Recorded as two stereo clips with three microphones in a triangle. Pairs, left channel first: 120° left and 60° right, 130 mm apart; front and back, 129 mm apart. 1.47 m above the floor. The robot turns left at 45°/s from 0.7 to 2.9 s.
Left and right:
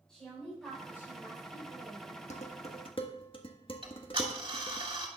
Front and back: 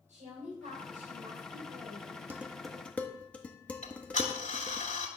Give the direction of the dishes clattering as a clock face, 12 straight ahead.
8 o'clock.